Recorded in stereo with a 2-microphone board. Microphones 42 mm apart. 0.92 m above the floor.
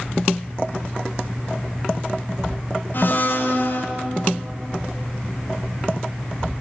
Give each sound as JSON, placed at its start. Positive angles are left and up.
{"t": 2.9, "sound": "a blender", "side_deg": 55, "distance_m": 1.0}